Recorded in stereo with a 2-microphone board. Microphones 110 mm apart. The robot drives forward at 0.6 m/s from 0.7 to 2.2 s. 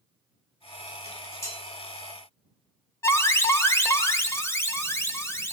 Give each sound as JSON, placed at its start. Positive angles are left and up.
{"t": 1.1, "sound": "dishes clattering", "side_deg": 25, "distance_m": 6.5}
{"t": 3.0, "sound": "an alarm", "side_deg": 25, "distance_m": 1.3}